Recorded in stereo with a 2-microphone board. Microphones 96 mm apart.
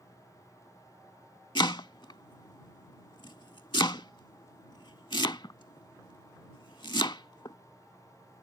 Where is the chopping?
50° left (ahead or behind).